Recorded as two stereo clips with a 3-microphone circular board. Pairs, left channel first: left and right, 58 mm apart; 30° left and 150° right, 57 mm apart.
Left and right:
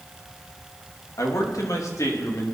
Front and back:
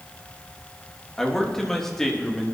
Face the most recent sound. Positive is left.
turn(degrees=115)